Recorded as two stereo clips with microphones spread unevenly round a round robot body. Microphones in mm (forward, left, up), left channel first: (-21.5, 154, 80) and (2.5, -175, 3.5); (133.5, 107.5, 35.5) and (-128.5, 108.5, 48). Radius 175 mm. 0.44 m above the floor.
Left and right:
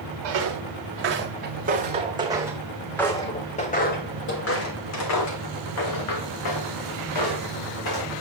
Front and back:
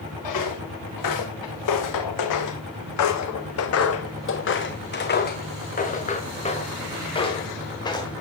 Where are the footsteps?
35° right, 2 m; by 8.1 s 75° left, 3.5 m.